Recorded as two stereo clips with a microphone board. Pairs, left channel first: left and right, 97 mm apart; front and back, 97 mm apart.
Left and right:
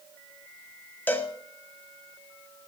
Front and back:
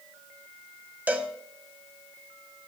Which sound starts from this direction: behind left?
A cowbell, at 1.1 s.